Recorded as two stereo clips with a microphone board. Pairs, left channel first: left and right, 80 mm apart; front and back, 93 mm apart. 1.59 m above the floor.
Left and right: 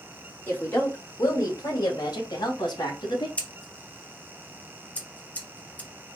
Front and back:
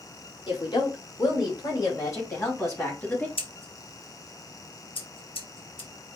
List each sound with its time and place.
0.5 s a woman speaking: 30° left, 2.0 m; by 3.3 s 70° left, 2.5 m
3.4 s scissors: 20° left, 1.0 m